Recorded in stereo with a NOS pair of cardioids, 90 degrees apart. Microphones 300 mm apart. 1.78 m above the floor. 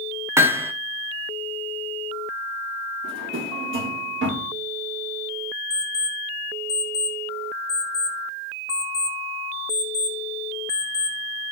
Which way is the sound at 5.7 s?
20° left.